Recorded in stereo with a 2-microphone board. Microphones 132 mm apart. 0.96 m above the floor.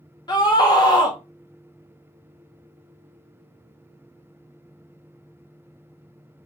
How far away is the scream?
About 0.5 m.